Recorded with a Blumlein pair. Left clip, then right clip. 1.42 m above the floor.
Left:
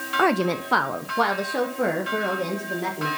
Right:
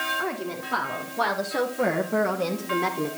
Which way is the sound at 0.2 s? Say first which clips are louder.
Left 8 dB; 50° left.